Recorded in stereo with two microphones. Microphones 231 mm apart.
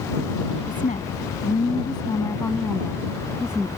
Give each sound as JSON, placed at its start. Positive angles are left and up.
{"t": 0.7, "sound": "a woman speaking", "side_deg": 35}